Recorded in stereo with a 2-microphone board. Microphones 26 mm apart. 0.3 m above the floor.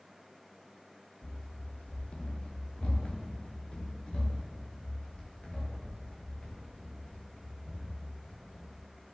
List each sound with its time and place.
1.2 s running footsteps: 65° left (ahead or behind), 1.9 m; by 8.8 s 30° left (ahead or behind), 5 m